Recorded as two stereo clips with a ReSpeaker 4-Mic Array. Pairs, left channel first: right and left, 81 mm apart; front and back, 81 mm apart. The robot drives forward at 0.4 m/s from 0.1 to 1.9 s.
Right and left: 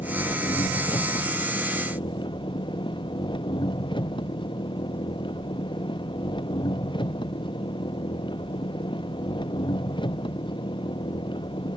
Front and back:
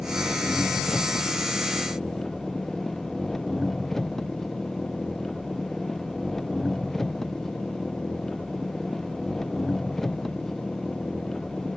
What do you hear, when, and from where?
0.0 s an engine running: 85° right